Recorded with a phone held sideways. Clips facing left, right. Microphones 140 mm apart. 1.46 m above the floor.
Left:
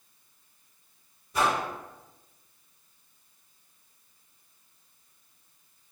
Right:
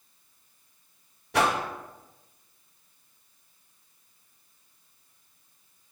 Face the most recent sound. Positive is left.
turn(degrees=-75)  # may be behind; listen again after turning